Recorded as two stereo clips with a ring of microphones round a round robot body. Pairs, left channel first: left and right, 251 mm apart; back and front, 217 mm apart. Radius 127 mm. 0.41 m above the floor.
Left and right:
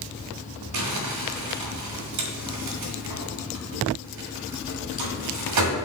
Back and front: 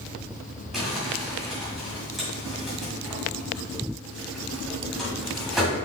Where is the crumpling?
90° right, 1.7 m.